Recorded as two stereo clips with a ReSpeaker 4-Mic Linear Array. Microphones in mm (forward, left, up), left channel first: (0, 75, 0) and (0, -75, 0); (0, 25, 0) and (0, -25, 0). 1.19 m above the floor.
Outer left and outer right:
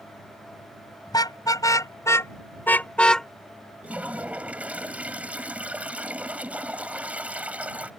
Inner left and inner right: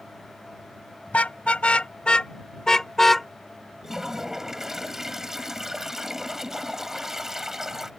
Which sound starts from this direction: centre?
A toilet flushing, at 3.8 s.